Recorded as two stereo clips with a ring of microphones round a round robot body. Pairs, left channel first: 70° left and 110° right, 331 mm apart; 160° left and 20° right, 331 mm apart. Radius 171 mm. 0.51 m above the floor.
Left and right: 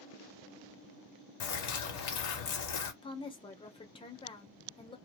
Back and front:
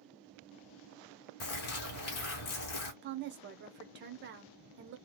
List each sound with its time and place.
1.4 s a bird: 110° left, 0.8 m
3.0 s a woman speaking: straight ahead, 0.8 m